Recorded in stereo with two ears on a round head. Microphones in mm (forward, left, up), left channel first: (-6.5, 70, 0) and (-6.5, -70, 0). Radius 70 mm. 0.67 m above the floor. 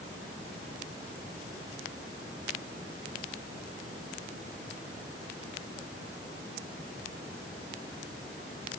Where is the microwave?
I don't hear a microwave.